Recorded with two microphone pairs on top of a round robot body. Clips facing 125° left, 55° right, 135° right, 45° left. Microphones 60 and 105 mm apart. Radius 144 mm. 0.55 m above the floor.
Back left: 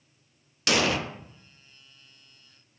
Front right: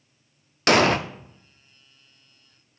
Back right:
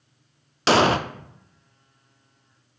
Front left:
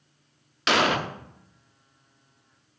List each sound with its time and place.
0.7 s an explosion: 80° right, 0.7 m